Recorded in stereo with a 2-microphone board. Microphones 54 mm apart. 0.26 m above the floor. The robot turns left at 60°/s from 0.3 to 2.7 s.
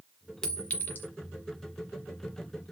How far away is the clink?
About 1.0 m.